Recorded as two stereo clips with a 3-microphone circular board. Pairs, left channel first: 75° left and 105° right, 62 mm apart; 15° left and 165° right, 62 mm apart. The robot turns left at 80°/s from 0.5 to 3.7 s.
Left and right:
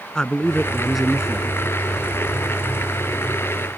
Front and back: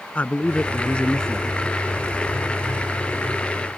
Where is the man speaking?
15° left; by 1.5 s 65° right.